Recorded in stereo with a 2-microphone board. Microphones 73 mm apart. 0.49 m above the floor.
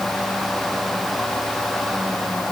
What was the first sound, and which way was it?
Only background noise.